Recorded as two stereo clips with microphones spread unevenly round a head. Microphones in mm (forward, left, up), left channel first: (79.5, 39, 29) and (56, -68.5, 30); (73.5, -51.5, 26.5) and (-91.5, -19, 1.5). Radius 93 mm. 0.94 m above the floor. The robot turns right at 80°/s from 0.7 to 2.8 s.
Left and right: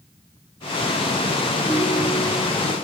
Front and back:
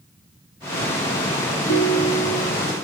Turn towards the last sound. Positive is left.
turn(degrees=65)